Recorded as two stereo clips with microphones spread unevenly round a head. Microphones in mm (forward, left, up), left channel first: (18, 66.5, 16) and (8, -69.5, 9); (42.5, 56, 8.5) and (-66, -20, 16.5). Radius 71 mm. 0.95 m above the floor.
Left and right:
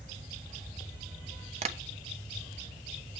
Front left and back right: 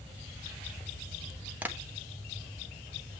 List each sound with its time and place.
1.6 s tapping: 70° right, 1.2 m